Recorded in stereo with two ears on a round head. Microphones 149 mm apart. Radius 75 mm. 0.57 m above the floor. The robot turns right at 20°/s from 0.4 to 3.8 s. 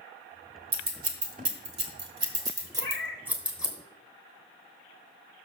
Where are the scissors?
60° right (ahead or behind), 1.3 m; by 3.7 s centre (ahead or behind), 1.3 m.